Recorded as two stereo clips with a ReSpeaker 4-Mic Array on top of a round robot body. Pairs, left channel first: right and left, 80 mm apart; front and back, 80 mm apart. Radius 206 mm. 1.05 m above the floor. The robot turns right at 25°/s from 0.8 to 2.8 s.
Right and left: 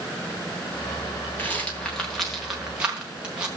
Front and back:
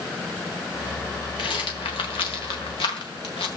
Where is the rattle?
25° right, 1.2 m; by 3.5 s 10° left, 1.2 m.